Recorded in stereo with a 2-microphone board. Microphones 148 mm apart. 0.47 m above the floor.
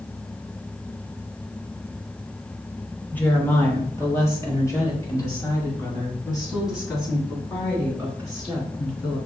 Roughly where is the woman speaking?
Centre.